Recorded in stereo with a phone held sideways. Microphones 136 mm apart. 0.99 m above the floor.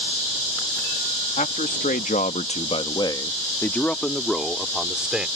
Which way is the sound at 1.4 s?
75° left (ahead or behind).